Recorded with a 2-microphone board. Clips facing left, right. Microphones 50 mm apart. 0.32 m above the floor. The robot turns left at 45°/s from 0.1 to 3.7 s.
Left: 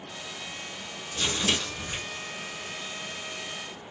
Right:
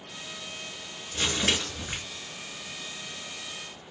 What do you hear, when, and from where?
1.1 s crumpling: 70° right, 2 m; by 2.0 s 105° right, 2 m